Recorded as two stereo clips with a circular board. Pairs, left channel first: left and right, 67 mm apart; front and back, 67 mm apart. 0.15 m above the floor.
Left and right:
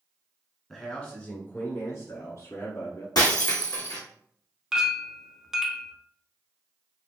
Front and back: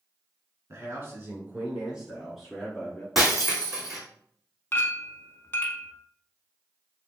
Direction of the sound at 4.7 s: 15° right.